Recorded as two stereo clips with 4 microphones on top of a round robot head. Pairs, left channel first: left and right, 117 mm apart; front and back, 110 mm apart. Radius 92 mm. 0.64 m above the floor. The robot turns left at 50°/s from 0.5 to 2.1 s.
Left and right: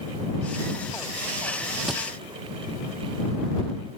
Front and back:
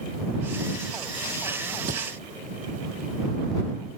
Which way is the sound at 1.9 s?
175° right.